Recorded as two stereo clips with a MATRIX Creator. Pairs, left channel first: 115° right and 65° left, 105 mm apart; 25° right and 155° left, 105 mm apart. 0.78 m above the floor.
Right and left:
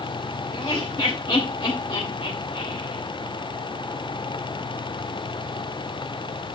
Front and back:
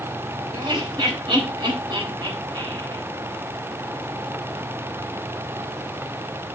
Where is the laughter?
155° right, 3 m.